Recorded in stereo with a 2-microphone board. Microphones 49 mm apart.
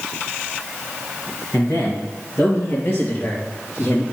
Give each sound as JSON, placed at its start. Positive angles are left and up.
{"t": 1.5, "sound": "a man speaking", "side_deg": 60, "distance_m": 3.0}